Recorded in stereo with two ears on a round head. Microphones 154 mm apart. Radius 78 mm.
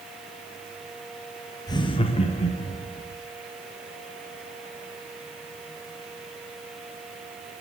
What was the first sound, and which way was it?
Laughter, 20° left (ahead or behind).